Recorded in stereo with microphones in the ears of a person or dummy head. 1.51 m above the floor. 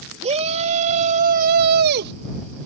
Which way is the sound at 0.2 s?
40° right (ahead or behind).